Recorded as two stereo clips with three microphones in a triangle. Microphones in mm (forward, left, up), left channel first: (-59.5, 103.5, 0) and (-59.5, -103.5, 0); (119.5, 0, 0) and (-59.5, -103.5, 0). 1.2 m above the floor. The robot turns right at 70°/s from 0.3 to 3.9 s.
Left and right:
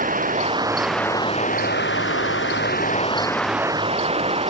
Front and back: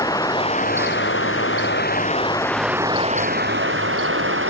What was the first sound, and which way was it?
Running water, 40° right.